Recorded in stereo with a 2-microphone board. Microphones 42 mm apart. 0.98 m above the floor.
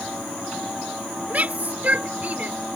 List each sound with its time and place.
1.3 s a shout: 40° right (ahead or behind)